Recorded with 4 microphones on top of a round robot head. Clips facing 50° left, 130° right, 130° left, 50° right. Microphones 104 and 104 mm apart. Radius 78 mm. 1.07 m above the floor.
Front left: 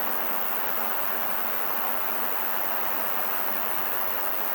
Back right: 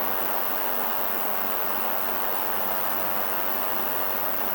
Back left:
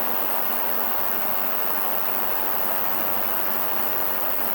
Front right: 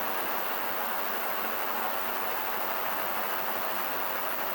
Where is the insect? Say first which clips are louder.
Back right 3 dB, back left 4 dB; 145° left, 1.3 m.